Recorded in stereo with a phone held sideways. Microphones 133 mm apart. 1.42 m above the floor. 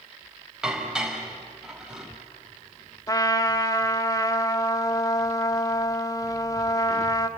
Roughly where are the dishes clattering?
Centre.